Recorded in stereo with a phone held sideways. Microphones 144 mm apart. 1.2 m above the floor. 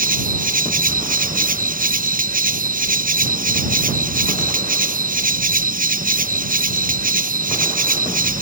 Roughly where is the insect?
Right.